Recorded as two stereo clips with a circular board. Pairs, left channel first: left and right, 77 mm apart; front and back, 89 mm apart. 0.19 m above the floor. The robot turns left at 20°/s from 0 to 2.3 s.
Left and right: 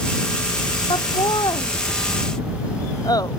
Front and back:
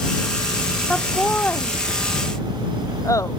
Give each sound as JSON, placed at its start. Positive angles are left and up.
{"t": 0.9, "sound": "laughter", "azimuth_deg": 85}